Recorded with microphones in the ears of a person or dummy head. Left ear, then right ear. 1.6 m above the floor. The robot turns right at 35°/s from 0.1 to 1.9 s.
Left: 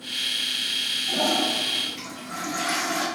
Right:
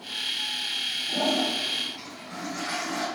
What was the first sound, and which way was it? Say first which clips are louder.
A toilet flushing: left 2 dB; 55° left (ahead or behind).